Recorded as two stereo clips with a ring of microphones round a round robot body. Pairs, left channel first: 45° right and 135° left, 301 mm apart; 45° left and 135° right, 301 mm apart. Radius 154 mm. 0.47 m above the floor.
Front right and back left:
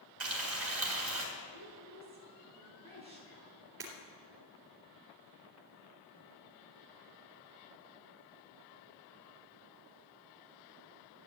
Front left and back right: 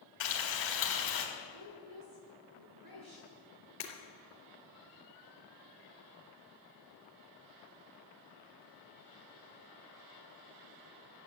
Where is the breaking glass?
80° left, 3.5 m.